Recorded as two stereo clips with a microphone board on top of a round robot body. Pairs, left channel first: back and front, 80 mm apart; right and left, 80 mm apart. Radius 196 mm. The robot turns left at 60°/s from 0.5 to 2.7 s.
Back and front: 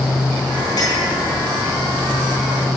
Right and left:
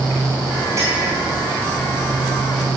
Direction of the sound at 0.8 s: 145° left.